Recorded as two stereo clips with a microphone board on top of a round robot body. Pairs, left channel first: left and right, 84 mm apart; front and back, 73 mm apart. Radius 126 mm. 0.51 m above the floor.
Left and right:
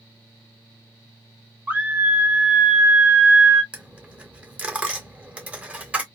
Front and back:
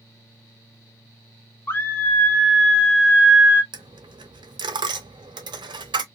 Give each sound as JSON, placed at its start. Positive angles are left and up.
{"t": 1.7, "sound": "a scream", "azimuth_deg": -35, "distance_m": 1.4}
{"t": 3.7, "sound": "a dropped coin", "azimuth_deg": -165, "distance_m": 0.7}